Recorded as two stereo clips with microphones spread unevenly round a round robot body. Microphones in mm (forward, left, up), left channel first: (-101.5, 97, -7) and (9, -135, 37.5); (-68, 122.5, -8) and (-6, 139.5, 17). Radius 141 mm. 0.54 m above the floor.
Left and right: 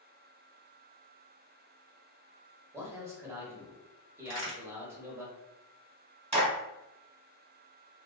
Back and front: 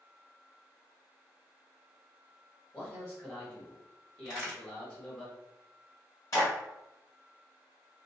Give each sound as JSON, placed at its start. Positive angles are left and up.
{"t": 2.7, "sound": "a man speaking", "azimuth_deg": -155, "distance_m": 1.0}
{"t": 4.2, "sound": "a crack", "azimuth_deg": -135, "distance_m": 1.4}
{"t": 6.3, "sound": "a clap", "azimuth_deg": -135, "distance_m": 1.3}